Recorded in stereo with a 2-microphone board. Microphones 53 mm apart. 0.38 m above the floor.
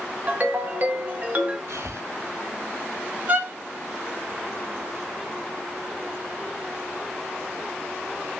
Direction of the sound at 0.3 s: 40° right (ahead or behind).